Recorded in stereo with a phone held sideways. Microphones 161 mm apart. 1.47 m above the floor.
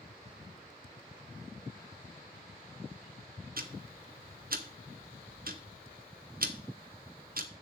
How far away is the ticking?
About 0.8 m.